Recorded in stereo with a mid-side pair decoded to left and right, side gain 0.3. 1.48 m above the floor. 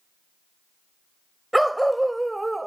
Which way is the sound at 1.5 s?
10° right.